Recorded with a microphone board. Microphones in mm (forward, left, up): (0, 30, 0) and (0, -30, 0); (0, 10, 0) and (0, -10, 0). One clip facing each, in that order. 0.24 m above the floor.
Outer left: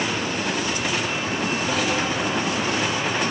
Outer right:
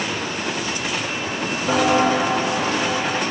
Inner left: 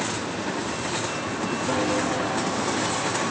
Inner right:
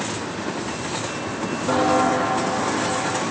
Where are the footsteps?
35° right (ahead or behind), 0.5 m; by 3.2 s 80° right, 2 m.